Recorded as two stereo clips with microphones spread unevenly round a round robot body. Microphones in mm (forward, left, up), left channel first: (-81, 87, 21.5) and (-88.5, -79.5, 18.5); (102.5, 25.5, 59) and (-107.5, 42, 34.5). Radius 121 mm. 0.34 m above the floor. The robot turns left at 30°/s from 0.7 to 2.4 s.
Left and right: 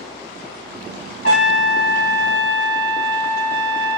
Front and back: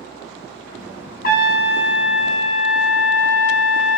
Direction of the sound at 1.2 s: 40° left.